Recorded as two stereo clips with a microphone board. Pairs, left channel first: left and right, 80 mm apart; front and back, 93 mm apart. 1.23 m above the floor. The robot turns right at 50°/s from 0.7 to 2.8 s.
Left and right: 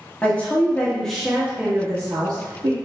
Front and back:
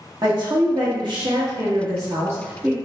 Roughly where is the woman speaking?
Behind left.